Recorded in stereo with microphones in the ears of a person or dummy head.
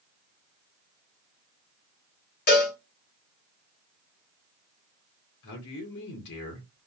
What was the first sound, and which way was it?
A cowbell, 45° left (ahead or behind).